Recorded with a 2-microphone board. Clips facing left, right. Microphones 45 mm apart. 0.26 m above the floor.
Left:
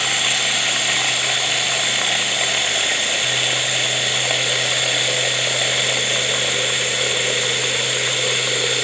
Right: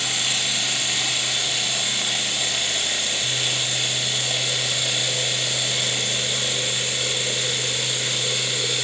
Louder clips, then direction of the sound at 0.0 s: Left 5 dB; 45° left (ahead or behind).